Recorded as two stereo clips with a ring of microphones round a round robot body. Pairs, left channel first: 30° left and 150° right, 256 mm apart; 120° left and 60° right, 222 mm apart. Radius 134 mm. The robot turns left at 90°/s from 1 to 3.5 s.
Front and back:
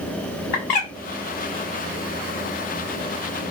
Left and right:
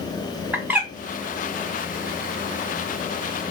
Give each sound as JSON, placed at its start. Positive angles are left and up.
{"t": 0.5, "sound": "a bird", "azimuth_deg": 20, "distance_m": 1.0}